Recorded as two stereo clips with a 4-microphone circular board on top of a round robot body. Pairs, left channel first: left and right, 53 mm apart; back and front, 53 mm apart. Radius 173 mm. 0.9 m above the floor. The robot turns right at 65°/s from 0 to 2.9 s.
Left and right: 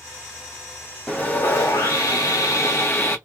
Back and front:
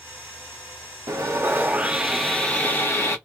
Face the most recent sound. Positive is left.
turn(degrees=135)